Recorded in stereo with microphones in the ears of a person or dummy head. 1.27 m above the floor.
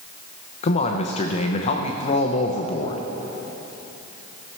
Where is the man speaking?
35° left (ahead or behind), 0.7 m.